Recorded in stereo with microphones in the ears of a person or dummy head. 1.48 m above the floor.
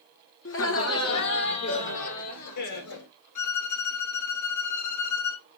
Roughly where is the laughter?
Left.